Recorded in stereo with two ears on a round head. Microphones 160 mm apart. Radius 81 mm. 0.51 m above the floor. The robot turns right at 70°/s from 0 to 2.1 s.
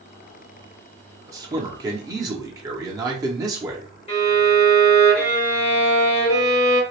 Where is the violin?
35° left (ahead or behind), 1.4 m.